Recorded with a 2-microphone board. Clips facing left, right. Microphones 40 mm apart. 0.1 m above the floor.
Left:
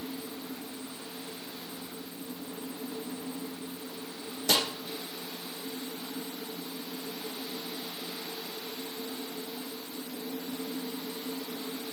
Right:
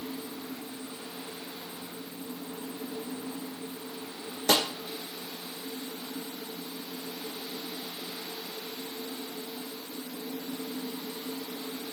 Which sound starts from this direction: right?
A snare drum, at 4.5 s.